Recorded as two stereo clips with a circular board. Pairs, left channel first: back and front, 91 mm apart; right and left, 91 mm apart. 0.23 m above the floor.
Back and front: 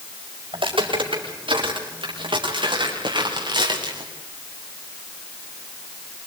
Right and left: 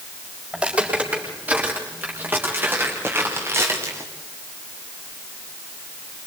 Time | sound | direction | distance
0.5 | footsteps | 15° left | 9 m